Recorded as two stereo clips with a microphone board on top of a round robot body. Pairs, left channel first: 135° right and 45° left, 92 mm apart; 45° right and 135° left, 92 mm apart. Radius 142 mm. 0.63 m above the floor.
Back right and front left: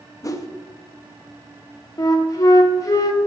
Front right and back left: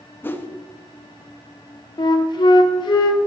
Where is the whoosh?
100° right, 1.2 m.